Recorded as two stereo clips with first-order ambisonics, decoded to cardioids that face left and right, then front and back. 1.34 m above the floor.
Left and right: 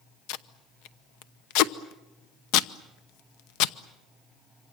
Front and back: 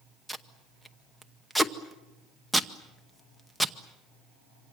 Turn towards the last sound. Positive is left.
turn(degrees=85)